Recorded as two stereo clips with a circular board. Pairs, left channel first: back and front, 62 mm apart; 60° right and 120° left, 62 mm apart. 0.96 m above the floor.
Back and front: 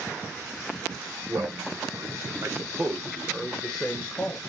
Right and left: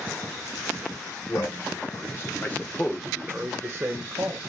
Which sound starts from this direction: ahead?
A man speaking, at 1.3 s.